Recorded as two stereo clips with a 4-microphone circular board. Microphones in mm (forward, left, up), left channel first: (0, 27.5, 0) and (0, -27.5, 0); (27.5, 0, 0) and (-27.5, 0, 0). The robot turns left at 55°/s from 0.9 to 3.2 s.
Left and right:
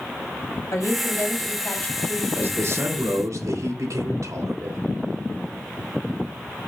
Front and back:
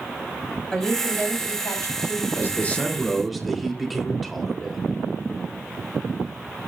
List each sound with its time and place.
0.7 s a woman speaking: 75° left, 3.5 m; by 2.2 s straight ahead, 3.5 m
2.4 s a man speaking: 45° right, 3 m; by 4.8 s 90° right, 3 m